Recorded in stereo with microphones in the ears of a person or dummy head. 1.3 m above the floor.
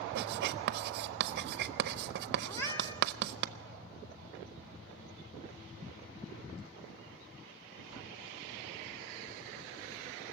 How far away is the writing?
About 0.7 m.